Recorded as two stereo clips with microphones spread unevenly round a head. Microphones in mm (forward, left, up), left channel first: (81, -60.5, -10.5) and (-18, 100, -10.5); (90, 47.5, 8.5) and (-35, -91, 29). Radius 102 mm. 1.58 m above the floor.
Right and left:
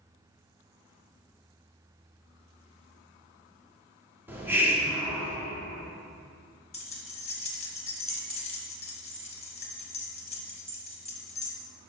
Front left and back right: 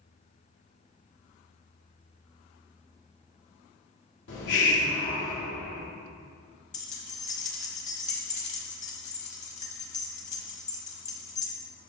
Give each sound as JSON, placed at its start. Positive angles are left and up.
{"t": 4.3, "sound": "a hiss", "azimuth_deg": 45, "distance_m": 1.5}
{"t": 6.7, "sound": "keys jangling", "azimuth_deg": -5, "distance_m": 1.3}